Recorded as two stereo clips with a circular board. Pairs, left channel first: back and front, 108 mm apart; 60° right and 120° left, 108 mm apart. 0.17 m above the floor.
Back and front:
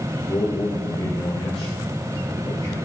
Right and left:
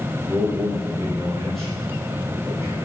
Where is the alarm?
No alarm in this recording.